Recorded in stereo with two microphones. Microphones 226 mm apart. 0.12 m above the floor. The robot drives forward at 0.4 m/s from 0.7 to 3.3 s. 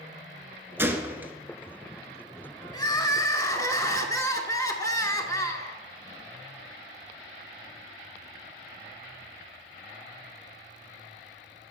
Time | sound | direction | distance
0.8 | a gunshot | 10° right (ahead or behind) | 0.5 m
2.7 | crying | 20° left (ahead or behind) | 0.5 m